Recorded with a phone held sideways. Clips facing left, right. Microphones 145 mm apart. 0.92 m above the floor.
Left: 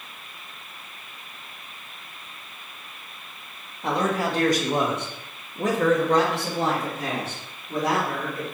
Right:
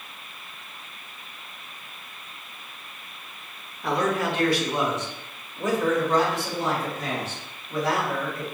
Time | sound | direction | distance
3.8 | a man speaking | 25° left (ahead or behind) | 1.0 m